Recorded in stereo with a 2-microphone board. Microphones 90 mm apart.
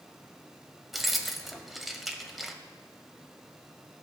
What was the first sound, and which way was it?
Keys jangling, centre (ahead or behind).